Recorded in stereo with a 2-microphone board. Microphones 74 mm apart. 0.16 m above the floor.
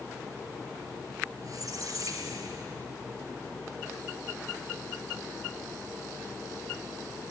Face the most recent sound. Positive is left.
turn(degrees=-55)  # may be behind; listen again after turning